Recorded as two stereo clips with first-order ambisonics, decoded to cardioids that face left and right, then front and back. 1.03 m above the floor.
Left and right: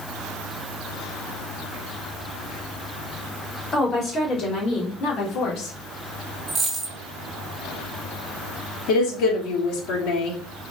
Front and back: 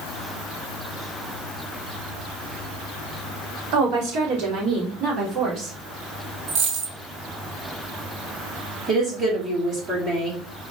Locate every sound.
3.7 s a woman speaking: 155° left, 3 m; by 5.8 s 120° left, 3.5 m
6.5 s a dropped coin: 160° right, 2.5 m
8.9 s a woman speaking: 115° left, 3 m